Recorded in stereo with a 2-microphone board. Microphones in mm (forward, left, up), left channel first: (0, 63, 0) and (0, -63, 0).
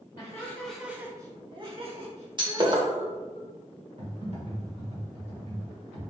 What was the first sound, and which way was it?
Laughter, 25° left (ahead or behind).